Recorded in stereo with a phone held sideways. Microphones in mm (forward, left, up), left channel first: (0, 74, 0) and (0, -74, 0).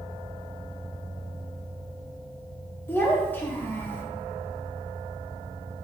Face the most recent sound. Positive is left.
turn(degrees=15)  # may be behind; listen again after turning